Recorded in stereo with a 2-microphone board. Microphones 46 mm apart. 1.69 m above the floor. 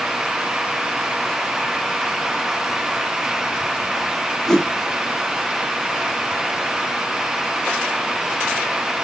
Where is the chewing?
I don't hear chewing.